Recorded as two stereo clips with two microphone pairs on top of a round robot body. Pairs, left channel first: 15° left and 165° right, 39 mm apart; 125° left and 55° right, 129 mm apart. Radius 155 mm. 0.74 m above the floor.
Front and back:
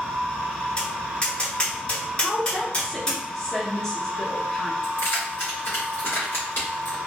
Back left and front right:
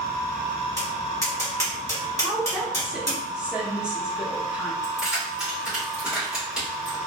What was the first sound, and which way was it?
Tapping, 65° left.